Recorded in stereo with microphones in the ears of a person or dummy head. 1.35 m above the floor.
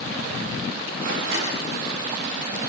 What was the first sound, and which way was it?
A door slam, 60° right (ahead or behind).